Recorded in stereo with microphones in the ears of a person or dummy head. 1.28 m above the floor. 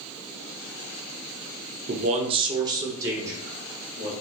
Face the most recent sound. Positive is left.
turn(degrees=-10)  # may be behind; listen again after turning